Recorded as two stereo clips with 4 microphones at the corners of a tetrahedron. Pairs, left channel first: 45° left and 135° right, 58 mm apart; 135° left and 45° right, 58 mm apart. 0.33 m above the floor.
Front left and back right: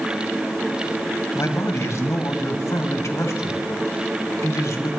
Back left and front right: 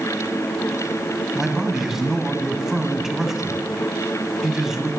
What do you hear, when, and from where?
1.4 s a man speaking: 40° left, 1.7 m